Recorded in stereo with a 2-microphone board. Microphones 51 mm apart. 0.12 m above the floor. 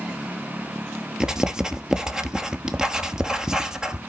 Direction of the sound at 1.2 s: 15° right (ahead or behind).